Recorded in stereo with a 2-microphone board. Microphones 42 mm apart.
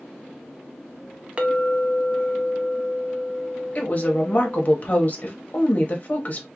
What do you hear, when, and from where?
1.4 s a clink: 30° right (ahead or behind), 0.5 m
3.8 s a woman speaking: 40° left (ahead or behind), 0.8 m